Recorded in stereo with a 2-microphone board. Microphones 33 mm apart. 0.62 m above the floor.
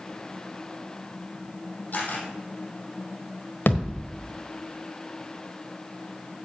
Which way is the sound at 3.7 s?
80° left.